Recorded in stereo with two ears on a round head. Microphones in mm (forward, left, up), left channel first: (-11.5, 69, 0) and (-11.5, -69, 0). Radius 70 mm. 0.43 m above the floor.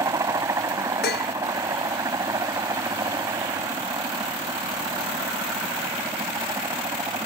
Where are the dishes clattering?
80° left.